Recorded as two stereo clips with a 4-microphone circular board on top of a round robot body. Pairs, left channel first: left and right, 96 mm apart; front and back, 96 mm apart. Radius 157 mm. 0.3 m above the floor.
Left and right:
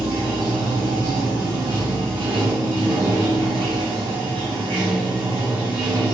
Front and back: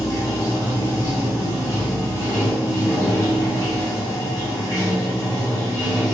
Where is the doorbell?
No doorbell in this recording.